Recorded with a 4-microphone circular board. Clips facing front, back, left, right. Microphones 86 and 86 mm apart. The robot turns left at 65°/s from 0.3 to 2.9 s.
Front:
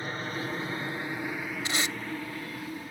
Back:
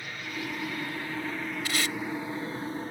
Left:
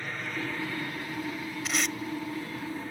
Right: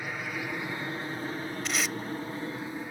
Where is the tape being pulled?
5° left; by 2.0 s 15° right.